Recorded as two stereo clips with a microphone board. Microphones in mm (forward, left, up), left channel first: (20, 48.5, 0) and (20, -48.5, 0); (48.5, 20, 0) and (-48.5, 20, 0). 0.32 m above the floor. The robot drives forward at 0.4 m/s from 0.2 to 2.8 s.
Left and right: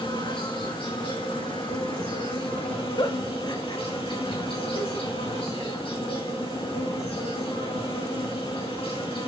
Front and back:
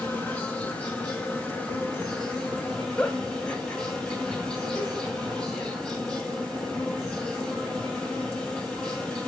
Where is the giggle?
75° left, 1.5 m.